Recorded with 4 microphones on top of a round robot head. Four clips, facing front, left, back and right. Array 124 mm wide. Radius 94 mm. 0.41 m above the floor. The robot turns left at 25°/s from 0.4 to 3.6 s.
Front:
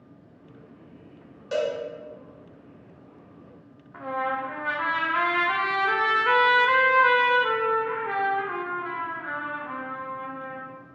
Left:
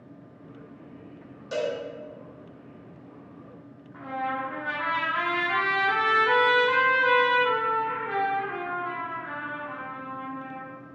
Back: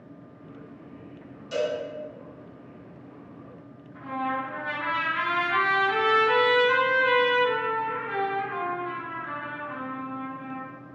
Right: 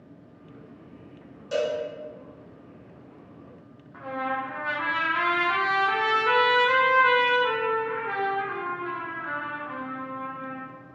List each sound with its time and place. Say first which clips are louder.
1.5 s a cowbell: right 2 dB, front 1 dB; 10° left, 1.2 m; by 1.8 s 5° left, 1.2 m
3.9 s a trumpet: right 1 dB, front 1 dB; 10° right, 0.7 m